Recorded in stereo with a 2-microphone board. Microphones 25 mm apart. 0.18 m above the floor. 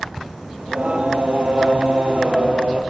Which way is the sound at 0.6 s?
65° right (ahead or behind).